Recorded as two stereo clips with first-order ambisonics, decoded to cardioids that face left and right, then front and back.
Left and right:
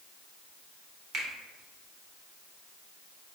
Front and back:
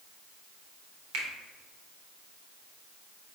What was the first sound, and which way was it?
A finger snap, 150° right.